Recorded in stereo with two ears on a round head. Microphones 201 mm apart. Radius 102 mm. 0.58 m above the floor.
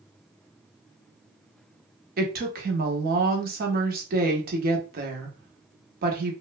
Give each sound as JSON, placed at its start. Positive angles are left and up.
{"t": 2.2, "sound": "a woman speaking", "side_deg": -40, "distance_m": 0.8}